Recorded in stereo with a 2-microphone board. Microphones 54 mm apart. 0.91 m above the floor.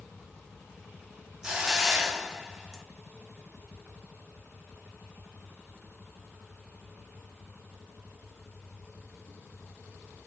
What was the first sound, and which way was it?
A hiss, 15° right (ahead or behind).